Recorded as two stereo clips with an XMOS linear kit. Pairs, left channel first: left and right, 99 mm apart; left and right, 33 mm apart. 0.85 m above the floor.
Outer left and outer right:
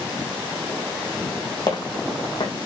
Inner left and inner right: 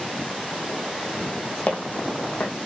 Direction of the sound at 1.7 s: 50° left (ahead or behind).